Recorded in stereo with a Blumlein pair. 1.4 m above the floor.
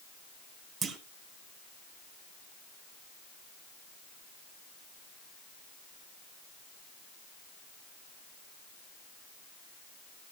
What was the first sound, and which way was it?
A clunk, 20° right.